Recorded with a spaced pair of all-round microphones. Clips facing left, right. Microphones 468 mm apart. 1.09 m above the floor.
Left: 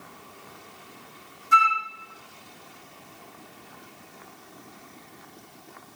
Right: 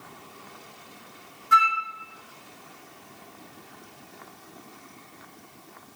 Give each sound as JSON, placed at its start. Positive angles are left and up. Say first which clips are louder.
{"t": 1.5, "sound": "a flute", "louder": "left 1 dB", "side_deg": -70, "distance_m": 1.5}